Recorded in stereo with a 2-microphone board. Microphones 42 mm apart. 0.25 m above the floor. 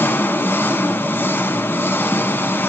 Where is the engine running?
60° left (ahead or behind), 0.9 m.